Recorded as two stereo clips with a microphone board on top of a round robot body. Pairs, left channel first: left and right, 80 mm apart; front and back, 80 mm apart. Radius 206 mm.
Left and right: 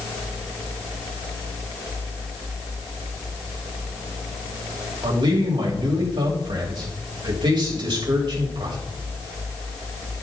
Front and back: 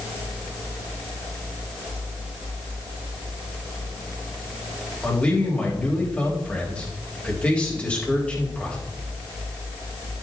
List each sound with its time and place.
5.0 s a man speaking: 75° right, 3.5 m